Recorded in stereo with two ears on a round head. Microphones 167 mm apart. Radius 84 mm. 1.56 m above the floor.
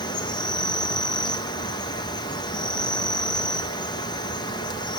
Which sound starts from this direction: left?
An insect, at 0.0 s.